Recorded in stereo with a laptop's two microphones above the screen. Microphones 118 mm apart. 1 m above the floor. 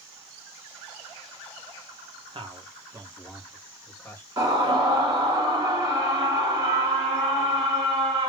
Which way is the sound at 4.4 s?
30° right (ahead or behind).